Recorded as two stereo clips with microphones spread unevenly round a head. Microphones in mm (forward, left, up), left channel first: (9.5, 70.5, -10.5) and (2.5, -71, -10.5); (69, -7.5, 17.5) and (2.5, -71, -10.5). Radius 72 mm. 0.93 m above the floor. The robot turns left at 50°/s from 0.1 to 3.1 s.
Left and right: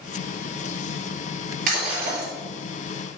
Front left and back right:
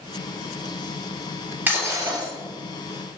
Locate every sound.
1.7 s breaking glass: 65° right, 3.5 m; by 2.3 s 95° right, 3.5 m